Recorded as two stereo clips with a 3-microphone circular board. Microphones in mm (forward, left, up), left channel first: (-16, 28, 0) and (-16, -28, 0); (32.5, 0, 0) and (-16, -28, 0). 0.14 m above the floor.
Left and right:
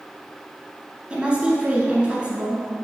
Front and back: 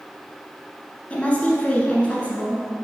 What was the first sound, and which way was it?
A woman speaking, 30° right.